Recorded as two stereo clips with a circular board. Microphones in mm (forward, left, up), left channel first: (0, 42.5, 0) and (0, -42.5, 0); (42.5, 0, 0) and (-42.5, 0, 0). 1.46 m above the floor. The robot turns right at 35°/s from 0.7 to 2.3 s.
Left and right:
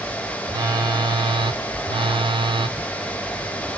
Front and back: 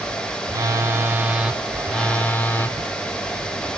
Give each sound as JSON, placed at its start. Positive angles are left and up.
{"t": 0.5, "sound": "a phone buzzing", "azimuth_deg": -125, "distance_m": 0.8}
{"t": 2.8, "sound": "a zipper", "azimuth_deg": -175, "distance_m": 0.6}